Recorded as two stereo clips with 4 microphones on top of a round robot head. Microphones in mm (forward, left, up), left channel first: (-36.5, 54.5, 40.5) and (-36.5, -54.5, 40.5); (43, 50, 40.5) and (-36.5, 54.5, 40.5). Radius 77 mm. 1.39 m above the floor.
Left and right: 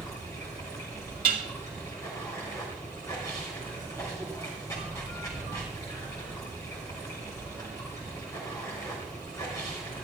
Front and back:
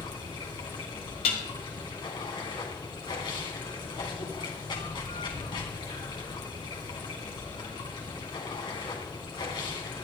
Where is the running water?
20° left, 3 m.